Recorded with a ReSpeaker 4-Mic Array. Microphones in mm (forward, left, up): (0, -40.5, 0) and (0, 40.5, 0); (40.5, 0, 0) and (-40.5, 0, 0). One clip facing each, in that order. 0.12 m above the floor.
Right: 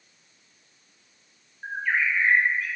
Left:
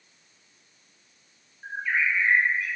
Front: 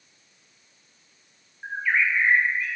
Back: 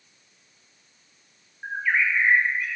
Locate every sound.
1.6 s a bird: 105° right, 2 m